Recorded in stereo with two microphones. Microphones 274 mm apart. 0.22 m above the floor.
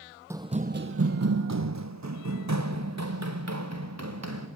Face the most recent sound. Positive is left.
turn(degrees=-65)  # may be behind; listen again after turning